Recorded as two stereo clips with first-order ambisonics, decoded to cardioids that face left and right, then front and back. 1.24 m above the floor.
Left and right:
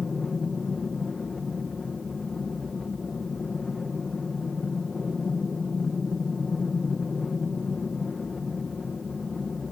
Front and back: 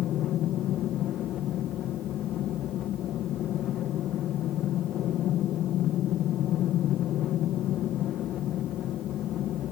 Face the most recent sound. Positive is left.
turn(degrees=20)